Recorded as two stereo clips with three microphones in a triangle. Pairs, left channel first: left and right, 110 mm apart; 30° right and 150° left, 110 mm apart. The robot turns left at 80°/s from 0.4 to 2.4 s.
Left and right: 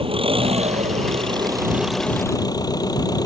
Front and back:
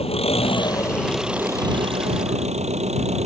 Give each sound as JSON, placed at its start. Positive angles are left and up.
{"t": 0.0, "sound": "an engine running", "azimuth_deg": -55}